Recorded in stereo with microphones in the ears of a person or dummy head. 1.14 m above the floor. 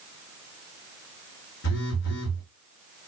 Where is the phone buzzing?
60° left (ahead or behind), 1.5 m.